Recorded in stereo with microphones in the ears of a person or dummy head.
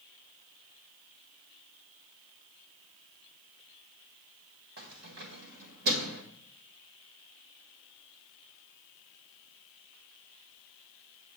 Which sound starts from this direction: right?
Keys jangling, at 4.8 s.